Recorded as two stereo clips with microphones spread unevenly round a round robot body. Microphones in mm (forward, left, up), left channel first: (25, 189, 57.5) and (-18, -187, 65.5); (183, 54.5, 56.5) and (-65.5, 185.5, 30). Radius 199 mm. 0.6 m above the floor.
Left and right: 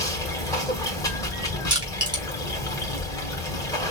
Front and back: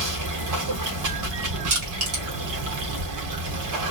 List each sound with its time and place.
0.0 s running water: 165° left, 1.6 m
1.7 s crushing: 175° right, 3 m